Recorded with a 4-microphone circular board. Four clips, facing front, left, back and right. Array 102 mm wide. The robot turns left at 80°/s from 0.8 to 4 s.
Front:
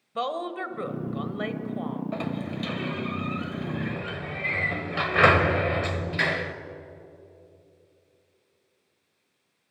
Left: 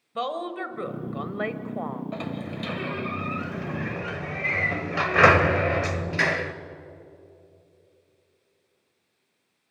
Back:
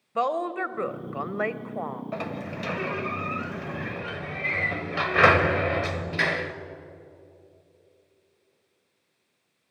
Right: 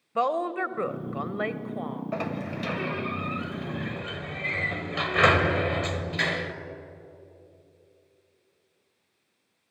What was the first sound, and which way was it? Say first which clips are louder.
A woman speaking: right 4 dB, back 4 dB; 130° right.